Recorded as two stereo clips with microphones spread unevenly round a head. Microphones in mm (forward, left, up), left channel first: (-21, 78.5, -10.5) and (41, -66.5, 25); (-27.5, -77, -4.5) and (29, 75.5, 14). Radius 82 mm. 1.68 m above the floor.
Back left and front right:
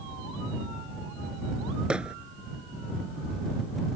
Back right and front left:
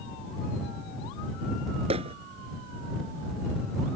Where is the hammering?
15° left.